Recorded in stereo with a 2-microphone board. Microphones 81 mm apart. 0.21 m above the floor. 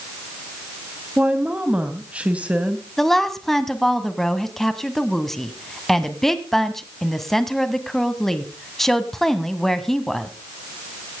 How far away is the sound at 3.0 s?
About 1.4 m.